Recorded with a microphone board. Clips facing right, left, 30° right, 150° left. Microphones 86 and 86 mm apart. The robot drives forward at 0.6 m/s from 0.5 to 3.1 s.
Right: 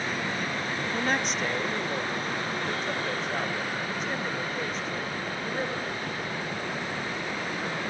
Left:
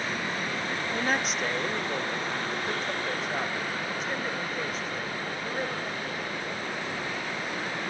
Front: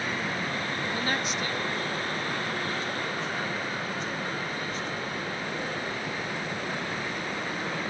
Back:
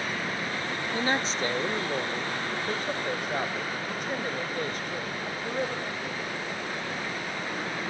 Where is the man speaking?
175° left, 0.7 m; by 5.9 s straight behind, 1.7 m.